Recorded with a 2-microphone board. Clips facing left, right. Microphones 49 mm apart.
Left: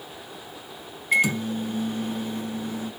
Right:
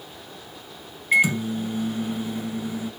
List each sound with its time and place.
1.1 s a microwave: 10° right (ahead or behind), 1.4 m